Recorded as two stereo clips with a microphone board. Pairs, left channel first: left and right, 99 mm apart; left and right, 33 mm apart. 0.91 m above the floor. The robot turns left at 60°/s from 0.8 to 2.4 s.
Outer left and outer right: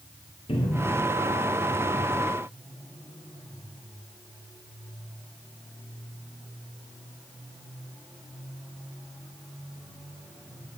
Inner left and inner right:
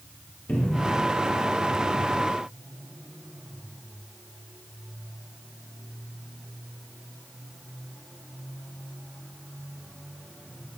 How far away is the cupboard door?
About 1.6 m.